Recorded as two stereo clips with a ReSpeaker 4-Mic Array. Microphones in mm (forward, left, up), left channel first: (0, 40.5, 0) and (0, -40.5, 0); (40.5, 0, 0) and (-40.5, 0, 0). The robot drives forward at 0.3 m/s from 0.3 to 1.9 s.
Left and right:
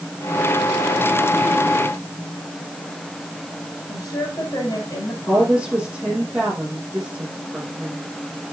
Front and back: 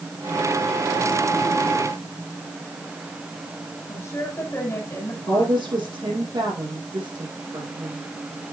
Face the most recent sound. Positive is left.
turn(degrees=-165)